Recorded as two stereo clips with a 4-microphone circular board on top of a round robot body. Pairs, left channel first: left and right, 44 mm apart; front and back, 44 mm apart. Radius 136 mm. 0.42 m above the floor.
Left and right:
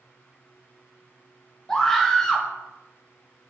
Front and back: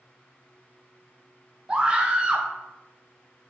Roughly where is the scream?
Behind.